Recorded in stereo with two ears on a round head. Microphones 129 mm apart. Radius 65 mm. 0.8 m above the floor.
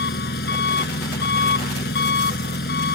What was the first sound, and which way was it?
An engine running, 85° left.